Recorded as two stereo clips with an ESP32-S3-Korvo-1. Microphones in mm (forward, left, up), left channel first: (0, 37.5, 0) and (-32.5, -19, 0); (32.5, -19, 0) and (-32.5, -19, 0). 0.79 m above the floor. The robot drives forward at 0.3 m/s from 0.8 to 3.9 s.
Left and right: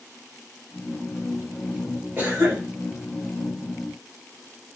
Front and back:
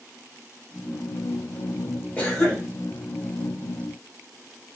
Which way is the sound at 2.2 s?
65° right.